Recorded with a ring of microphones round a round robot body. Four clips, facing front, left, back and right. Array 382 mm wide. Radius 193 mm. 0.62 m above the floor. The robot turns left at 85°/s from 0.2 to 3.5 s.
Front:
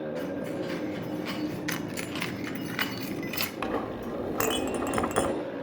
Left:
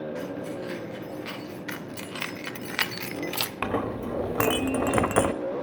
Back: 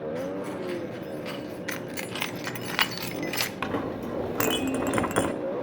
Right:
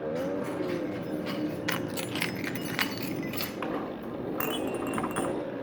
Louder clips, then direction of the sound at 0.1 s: Right 2 dB, back 1 dB; 175° right.